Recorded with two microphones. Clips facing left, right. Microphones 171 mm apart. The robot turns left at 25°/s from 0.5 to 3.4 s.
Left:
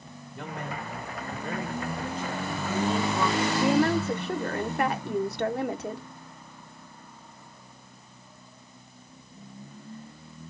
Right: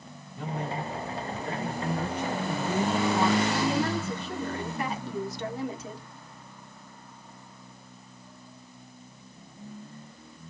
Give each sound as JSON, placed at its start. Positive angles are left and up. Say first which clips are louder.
{"t": 0.3, "sound": "a man speaking", "louder": "right 3 dB", "azimuth_deg": 115, "distance_m": 1.9}
{"t": 1.8, "sound": "a woman speaking", "louder": "right 2 dB", "azimuth_deg": -90, "distance_m": 1.3}
{"t": 3.6, "sound": "a woman speaking", "louder": "left 4 dB", "side_deg": 60, "distance_m": 0.8}